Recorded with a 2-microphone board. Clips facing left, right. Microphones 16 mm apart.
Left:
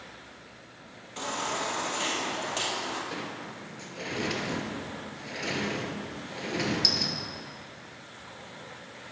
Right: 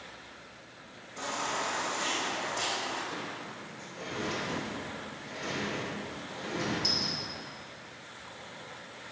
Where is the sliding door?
45° left (ahead or behind), 0.9 m.